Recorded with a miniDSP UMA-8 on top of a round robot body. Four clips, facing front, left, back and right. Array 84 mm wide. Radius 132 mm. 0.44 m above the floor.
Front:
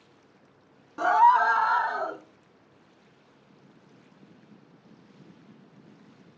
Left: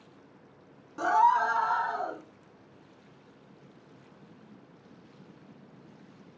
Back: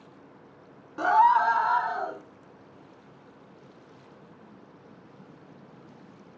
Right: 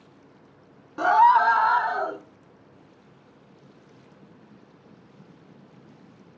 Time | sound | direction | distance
1.0 | a scream | 100° right | 0.9 m